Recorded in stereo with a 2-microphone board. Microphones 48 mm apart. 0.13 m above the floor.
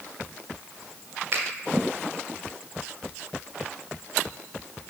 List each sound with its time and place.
1.3 s a finger snap: 45° right (ahead or behind), 1.8 m